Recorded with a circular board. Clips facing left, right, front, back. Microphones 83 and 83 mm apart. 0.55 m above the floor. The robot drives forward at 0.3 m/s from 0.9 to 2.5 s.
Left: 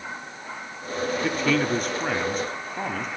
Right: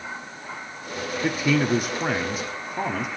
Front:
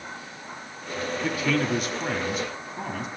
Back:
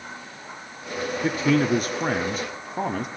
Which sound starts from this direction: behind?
A man speaking, at 1.2 s.